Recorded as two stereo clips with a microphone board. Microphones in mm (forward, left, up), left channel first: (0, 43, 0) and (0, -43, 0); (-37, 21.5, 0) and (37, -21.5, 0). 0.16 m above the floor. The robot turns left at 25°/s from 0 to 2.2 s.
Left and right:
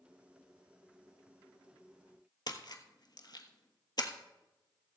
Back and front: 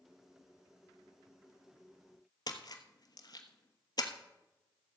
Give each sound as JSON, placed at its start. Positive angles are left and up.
{"t": 2.5, "sound": "a splash", "azimuth_deg": 120, "distance_m": 1.2}